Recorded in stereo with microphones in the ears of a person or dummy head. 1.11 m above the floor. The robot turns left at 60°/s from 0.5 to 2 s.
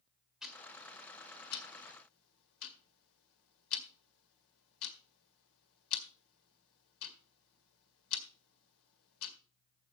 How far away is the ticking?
About 1.8 m.